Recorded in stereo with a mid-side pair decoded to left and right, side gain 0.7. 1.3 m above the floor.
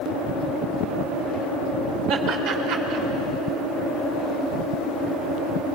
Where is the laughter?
65° right, 4 m.